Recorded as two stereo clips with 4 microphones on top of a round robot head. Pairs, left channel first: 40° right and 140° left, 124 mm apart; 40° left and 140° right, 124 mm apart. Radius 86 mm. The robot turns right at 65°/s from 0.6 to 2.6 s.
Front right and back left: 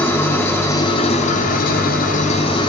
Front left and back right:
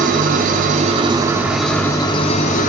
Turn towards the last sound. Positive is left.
turn(degrees=15)